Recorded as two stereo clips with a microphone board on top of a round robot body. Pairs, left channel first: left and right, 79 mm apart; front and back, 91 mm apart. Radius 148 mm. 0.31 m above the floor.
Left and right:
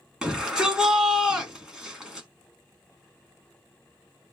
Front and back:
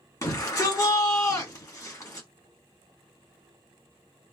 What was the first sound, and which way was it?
A shout, 15° right.